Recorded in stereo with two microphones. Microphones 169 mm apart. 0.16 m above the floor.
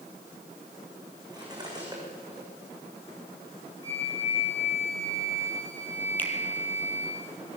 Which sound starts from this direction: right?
Cutlery clinking, at 1.3 s.